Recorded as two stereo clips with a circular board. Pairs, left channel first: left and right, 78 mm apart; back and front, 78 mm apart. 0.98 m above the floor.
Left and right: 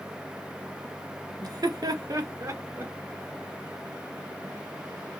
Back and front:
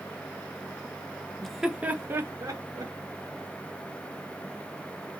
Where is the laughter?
95° right, 0.6 m; by 2.9 s 40° right, 1.2 m.